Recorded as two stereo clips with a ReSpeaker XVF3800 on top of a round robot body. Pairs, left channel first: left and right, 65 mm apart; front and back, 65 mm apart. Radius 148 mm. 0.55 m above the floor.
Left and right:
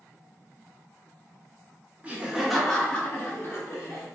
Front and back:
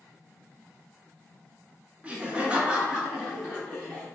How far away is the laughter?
About 1.0 m.